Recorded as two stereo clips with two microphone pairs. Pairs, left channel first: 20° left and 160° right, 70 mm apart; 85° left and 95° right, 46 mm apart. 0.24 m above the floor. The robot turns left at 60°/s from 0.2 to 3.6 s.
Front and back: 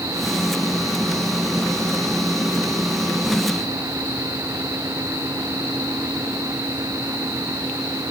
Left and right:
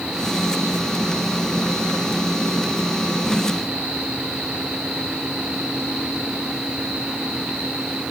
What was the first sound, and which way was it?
Only background noise.